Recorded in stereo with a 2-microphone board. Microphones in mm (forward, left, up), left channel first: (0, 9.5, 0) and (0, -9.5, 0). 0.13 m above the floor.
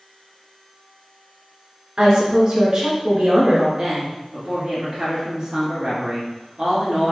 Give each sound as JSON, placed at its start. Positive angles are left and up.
{"t": 2.0, "sound": "a woman speaking", "side_deg": -40, "distance_m": 1.9}
{"t": 3.8, "sound": "a woman speaking", "side_deg": -45, "distance_m": 1.6}